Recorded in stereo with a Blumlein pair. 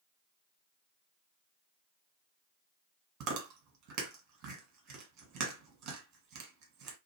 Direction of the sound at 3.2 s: 40° right.